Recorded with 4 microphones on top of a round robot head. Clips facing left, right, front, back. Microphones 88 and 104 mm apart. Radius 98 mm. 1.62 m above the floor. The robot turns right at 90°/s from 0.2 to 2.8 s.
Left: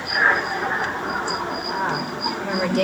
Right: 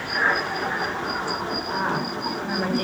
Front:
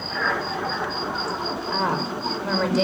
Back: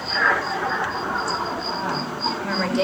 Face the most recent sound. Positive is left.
turn(degrees=90)